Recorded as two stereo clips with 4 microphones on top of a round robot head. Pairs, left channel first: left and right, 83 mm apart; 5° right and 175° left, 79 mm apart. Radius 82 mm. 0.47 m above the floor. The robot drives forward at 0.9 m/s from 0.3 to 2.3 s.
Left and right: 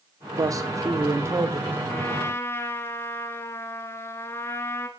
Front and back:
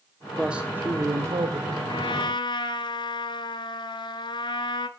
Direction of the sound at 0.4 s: 105° right.